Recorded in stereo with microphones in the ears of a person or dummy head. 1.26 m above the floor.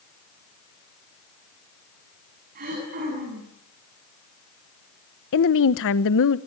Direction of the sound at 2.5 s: 45° right (ahead or behind).